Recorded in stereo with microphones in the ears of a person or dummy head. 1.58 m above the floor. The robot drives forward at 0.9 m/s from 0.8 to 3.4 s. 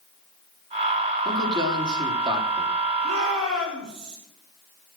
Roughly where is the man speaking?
Right.